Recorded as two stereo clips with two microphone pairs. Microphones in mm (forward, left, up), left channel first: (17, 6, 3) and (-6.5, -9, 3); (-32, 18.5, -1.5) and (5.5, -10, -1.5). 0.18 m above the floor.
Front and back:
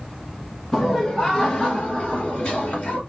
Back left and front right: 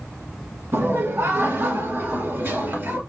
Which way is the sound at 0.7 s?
45° right.